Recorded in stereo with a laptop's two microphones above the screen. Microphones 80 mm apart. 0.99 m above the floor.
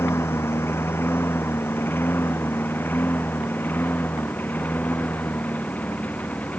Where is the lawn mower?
30° left (ahead or behind); by 6.6 s 15° left (ahead or behind).